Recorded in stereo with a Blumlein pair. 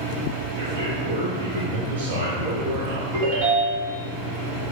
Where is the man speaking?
50° right, 1.2 m.